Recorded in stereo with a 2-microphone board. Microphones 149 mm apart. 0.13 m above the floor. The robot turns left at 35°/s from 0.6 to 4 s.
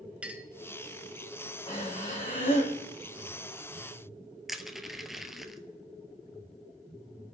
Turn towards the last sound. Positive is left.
turn(degrees=0)  # may be behind; listen again after turning